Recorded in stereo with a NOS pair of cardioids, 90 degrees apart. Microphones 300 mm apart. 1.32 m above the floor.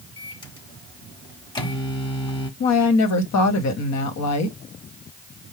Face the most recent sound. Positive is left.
turn(degrees=65)